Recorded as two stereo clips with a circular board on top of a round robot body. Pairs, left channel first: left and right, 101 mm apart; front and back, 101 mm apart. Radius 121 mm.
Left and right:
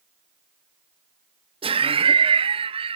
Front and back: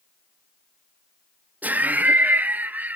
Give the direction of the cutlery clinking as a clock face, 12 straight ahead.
I don't hear cutlery clinking.